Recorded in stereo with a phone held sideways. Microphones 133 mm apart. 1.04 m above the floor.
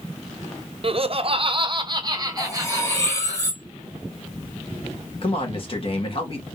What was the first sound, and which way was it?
Laughter, 45° right (ahead or behind).